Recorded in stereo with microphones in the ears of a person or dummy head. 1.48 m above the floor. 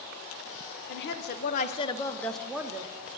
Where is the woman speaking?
65° left (ahead or behind), 1.1 m; by 2.9 s 15° right (ahead or behind), 0.9 m.